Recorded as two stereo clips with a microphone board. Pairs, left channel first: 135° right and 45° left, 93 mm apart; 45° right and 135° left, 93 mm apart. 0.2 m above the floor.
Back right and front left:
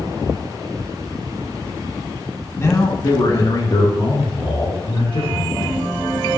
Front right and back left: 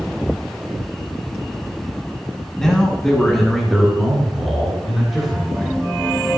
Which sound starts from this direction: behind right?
A man speaking, at 2.6 s.